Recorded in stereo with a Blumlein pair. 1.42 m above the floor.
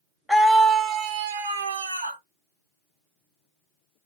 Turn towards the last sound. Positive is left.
turn(degrees=-80)